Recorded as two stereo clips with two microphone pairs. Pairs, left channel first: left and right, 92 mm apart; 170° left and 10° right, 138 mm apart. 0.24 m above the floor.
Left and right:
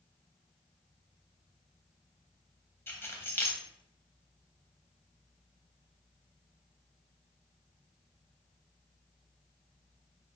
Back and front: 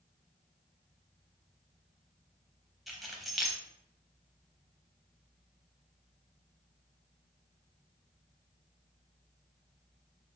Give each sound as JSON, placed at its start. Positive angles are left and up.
{"t": 2.9, "sound": "keys jangling", "azimuth_deg": 80, "distance_m": 0.7}